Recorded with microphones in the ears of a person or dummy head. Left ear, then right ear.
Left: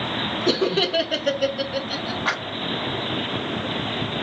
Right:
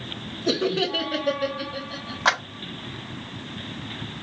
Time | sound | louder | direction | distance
0.5 | laughter | left 2 dB | 10° left (ahead or behind) | 0.7 m
2.2 | a clap | right 4 dB | 50° right (ahead or behind) | 2 m